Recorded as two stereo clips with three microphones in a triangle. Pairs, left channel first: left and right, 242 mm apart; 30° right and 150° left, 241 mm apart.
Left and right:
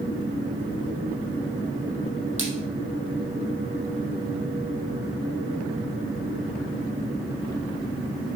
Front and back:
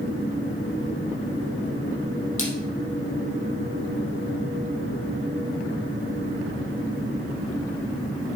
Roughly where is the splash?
Ahead right.